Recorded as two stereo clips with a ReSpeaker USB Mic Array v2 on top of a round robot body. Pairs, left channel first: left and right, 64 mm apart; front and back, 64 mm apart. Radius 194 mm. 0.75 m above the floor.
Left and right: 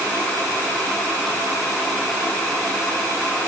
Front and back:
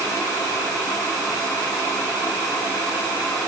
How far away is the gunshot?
I don't hear a gunshot.